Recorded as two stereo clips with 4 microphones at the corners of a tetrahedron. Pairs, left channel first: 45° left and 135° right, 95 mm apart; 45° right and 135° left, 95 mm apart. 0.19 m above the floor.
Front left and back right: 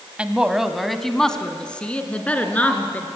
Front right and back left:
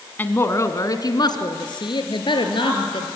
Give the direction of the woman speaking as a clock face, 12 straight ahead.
3 o'clock.